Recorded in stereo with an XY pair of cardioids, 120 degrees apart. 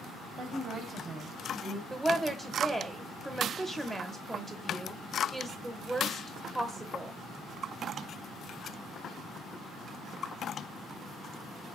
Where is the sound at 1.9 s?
15° right, 0.7 m.